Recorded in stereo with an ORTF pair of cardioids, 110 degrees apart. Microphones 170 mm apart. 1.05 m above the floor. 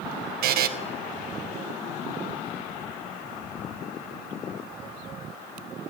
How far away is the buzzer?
About 1.1 m.